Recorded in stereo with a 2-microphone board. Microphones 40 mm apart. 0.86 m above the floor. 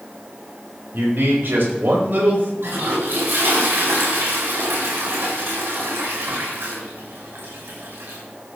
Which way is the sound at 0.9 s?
60° right (ahead or behind).